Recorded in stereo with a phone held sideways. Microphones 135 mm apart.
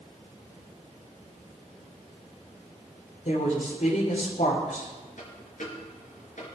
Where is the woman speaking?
75° left (ahead or behind), 3.5 m.